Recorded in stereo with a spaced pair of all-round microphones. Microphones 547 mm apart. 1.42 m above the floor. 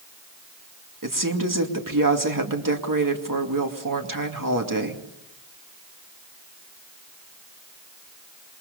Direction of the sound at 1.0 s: 35° right (ahead or behind).